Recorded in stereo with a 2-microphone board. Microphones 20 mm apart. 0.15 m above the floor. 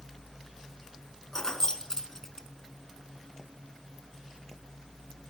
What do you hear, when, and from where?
1.3 s keys jangling: 30° left (ahead or behind), 0.9 m